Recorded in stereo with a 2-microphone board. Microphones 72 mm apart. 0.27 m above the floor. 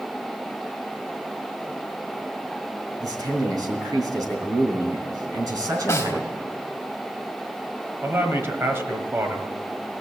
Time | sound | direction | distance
3.0 | a man speaking | 60° right (ahead or behind) | 3 m
5.9 | a snare drum | 40° left (ahead or behind) | 1.1 m
8.0 | a man speaking | 35° right (ahead or behind) | 1.4 m